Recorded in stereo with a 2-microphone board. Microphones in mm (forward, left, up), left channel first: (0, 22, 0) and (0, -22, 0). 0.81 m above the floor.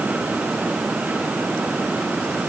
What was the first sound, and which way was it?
Only background noise.